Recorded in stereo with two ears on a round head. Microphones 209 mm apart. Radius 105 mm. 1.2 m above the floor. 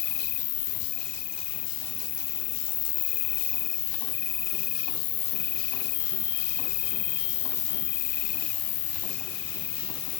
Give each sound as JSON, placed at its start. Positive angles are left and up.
{"t": 0.0, "sound": "an insect", "side_deg": 35}